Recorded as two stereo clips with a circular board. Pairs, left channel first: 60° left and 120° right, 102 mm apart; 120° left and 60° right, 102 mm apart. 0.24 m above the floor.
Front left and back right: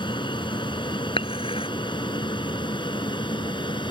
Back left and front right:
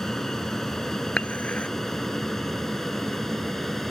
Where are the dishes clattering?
40° left.